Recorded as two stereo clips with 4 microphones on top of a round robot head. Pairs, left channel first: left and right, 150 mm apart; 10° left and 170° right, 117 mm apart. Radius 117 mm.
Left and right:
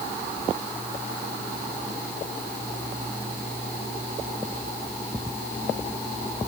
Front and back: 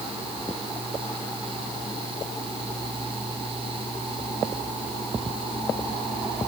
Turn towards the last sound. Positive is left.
No sound to turn to.